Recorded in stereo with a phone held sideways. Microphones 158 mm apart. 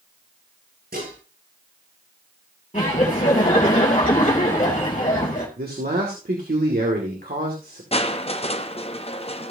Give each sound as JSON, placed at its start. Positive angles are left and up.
{"t": 0.9, "sound": "dishes clattering", "side_deg": -80, "distance_m": 9.0}
{"t": 2.7, "sound": "laughter", "side_deg": 40, "distance_m": 3.0}
{"t": 5.6, "sound": "a man speaking", "side_deg": -80, "distance_m": 2.0}
{"t": 7.9, "sound": "crushing", "side_deg": 40, "distance_m": 0.8}